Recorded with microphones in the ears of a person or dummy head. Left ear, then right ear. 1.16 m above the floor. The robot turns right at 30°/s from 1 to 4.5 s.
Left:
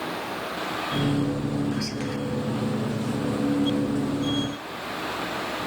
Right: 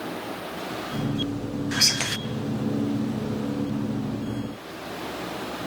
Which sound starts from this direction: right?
Whispering, at 1.7 s.